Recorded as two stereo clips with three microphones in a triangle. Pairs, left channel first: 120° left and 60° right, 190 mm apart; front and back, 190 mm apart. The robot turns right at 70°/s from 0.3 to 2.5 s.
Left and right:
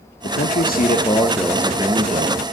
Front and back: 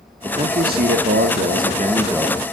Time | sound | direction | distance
0.2 | a man speaking | 125° left | 1.5 m